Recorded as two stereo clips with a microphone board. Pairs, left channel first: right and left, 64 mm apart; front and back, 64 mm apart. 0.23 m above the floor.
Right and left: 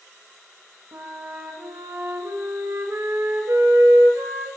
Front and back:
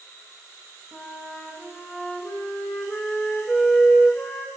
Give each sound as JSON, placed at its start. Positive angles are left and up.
{"t": 0.9, "sound": "a flute", "azimuth_deg": 70, "distance_m": 0.6}